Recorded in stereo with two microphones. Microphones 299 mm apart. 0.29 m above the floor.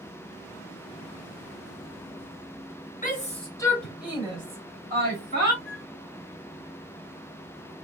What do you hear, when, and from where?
3.0 s a shout: 30° left (ahead or behind), 1.0 m; by 5.5 s 40° right (ahead or behind), 1.4 m
5.7 s a flute: 35° left (ahead or behind), 1.2 m